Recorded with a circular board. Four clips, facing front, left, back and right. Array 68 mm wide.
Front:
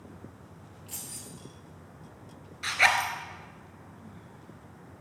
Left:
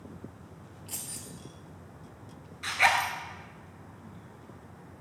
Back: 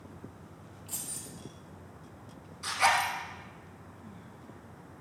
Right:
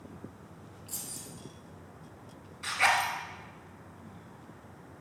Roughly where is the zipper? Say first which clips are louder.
Left 2 dB, front 2 dB; ahead.